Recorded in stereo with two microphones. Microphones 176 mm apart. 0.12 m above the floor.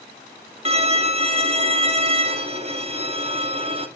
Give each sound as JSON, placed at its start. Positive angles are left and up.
{"t": 0.7, "sound": "a violin", "side_deg": -35, "distance_m": 1.1}